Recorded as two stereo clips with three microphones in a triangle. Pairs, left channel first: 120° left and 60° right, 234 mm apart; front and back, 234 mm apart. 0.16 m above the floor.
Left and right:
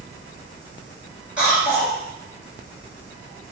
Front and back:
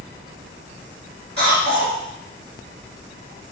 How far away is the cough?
About 1.9 m.